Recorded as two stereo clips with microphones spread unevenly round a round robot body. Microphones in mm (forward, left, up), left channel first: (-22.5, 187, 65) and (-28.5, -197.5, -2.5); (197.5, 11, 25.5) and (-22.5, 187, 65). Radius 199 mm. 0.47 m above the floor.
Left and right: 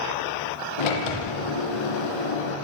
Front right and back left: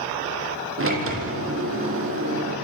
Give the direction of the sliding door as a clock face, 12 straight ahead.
9 o'clock.